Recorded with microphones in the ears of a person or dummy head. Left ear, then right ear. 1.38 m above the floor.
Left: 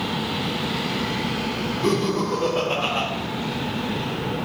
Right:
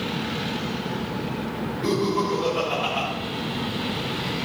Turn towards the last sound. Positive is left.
turn(degrees=10)  # may be behind; listen again after turning